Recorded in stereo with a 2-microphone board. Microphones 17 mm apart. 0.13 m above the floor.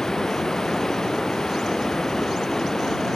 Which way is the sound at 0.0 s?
35° left (ahead or behind).